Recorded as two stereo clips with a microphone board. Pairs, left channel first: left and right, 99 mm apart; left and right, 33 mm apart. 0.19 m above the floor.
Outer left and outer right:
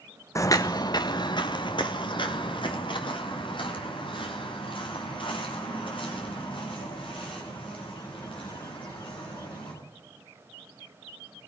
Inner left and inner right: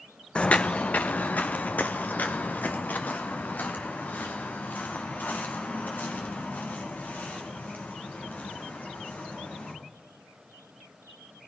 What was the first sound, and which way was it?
Footsteps, 30° left (ahead or behind).